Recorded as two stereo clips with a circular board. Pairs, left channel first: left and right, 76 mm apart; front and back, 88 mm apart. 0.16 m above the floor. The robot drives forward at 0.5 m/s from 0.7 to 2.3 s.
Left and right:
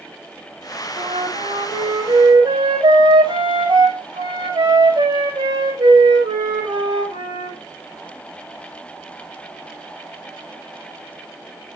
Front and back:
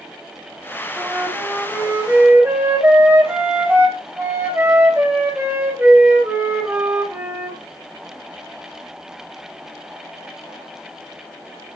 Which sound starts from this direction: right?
A flute, at 1.0 s.